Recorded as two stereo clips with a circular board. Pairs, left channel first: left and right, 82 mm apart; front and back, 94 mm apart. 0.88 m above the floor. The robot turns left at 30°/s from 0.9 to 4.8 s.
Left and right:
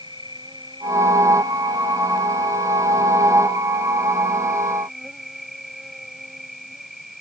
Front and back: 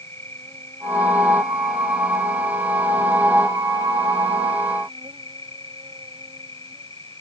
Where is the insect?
60° right; by 7.2 s 175° right.